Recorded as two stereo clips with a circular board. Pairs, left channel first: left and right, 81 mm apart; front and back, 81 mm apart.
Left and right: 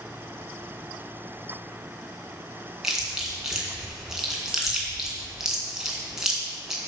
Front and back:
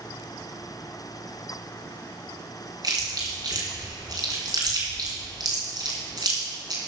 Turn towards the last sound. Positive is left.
turn(degrees=-170)